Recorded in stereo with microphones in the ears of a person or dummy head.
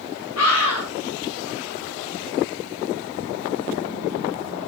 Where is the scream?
90° left, 4.5 m.